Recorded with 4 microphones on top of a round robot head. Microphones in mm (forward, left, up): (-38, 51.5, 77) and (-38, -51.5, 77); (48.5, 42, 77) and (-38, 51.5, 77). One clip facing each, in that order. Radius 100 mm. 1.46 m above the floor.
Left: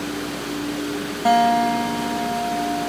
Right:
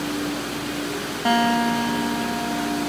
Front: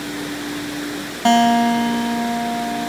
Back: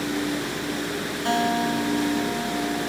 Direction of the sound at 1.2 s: 5° left.